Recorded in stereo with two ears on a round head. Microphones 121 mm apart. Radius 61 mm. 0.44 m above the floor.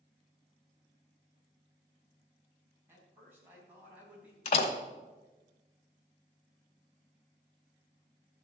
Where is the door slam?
50° left (ahead or behind), 1.5 m.